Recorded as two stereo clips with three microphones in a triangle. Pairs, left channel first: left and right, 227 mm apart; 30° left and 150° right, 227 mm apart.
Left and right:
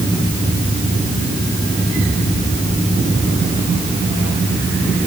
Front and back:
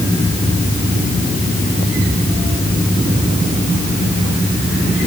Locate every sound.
Only background noise.